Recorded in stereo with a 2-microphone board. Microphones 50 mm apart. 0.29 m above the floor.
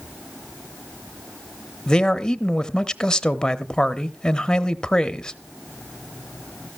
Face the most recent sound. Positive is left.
turn(degrees=15)  # may be behind; listen again after turning